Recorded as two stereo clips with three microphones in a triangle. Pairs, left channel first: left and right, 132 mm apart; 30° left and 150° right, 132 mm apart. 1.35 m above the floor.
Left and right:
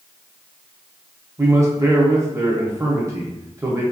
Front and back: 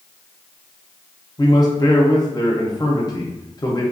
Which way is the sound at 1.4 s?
30° right.